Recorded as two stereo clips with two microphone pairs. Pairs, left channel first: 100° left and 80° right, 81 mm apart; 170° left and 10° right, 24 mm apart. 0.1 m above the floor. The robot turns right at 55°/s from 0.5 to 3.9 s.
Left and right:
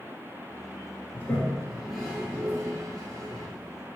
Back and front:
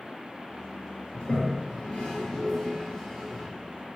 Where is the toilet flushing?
150° left, 1.0 m; by 3.5 s 80° right, 1.0 m.